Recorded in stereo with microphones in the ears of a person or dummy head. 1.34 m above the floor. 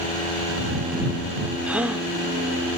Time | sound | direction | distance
1.7 | a gasp | 5° right (ahead or behind) | ?